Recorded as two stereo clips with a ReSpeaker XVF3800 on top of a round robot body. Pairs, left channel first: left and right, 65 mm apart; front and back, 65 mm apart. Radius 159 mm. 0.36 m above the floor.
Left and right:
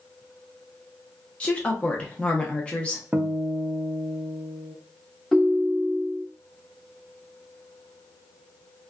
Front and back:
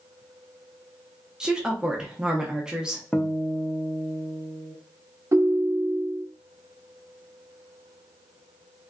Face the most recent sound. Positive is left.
turn(degrees=175)